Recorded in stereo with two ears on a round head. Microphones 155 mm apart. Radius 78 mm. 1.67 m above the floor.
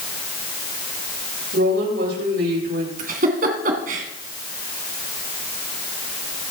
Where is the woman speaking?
65° right (ahead or behind), 8 m.